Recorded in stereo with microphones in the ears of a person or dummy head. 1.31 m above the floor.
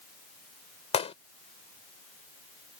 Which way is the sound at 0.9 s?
30° left (ahead or behind).